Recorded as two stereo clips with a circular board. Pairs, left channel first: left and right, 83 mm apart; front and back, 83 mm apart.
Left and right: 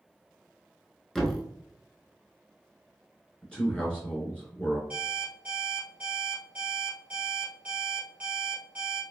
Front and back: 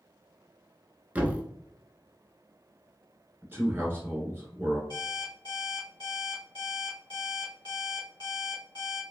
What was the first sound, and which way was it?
A thud, 165° left.